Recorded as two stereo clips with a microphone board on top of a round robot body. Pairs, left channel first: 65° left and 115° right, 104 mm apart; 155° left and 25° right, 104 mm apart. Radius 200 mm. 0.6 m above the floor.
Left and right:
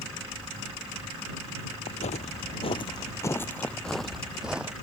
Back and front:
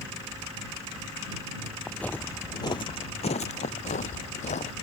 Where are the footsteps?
75° left; by 4.7 s 170° left.